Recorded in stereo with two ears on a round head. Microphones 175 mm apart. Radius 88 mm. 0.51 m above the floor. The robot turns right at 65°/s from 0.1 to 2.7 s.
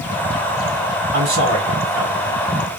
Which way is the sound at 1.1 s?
120° right.